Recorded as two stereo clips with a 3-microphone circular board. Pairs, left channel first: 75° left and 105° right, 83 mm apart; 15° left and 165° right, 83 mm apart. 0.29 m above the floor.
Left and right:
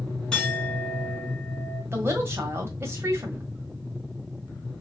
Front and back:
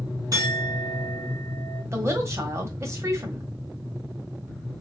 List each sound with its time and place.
0.3 s a clink: 155° left, 2.5 m
1.9 s a woman speaking: 140° right, 1.1 m